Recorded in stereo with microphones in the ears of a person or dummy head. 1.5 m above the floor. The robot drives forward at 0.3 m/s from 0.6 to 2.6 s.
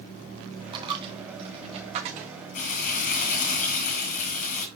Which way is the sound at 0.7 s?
25° right (ahead or behind).